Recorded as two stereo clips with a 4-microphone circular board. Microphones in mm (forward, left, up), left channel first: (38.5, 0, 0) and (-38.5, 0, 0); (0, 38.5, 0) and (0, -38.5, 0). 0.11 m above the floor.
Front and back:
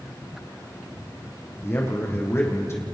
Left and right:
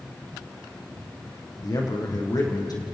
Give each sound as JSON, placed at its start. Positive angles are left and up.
{"t": 1.6, "sound": "a man speaking", "azimuth_deg": 55, "distance_m": 5.0}